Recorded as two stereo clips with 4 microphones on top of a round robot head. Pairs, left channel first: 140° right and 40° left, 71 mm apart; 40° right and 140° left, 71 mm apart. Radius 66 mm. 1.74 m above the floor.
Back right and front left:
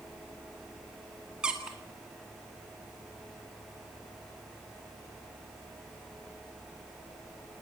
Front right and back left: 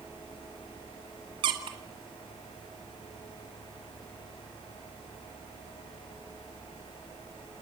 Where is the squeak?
120° left, 1.9 m.